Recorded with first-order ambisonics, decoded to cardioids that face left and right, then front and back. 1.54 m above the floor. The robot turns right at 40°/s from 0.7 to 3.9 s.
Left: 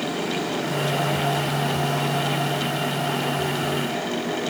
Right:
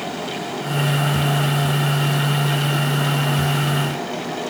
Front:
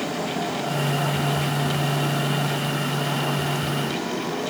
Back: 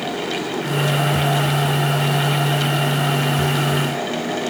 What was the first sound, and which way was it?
Only background noise.